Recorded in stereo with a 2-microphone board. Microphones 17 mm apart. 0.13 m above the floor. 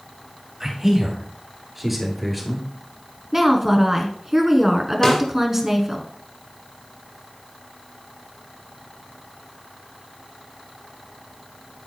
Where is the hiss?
I don't hear a hiss.